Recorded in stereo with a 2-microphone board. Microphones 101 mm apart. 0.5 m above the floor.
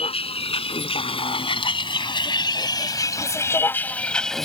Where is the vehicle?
75° left (ahead or behind); by 4.5 s centre (ahead or behind).